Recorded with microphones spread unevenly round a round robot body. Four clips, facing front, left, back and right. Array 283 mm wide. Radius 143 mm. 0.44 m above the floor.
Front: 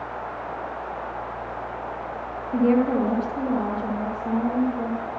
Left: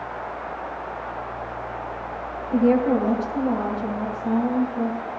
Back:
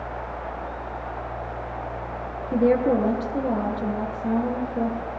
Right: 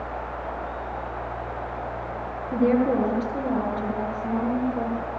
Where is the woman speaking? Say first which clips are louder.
Left 2 dB, even; 170° right, 9 m.